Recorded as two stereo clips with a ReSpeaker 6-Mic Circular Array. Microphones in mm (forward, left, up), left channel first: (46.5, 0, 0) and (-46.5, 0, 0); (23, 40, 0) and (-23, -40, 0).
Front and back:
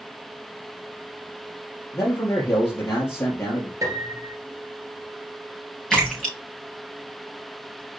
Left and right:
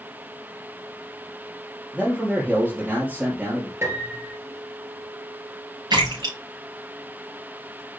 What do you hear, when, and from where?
1.9 s a man speaking: 50° right, 2.5 m
3.8 s a piano: 165° right, 1.9 m
5.9 s a splash: 85° right, 4 m